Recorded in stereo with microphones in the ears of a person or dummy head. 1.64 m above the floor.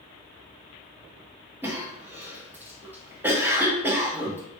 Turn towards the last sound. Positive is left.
turn(degrees=-15)  # may be behind; listen again after turning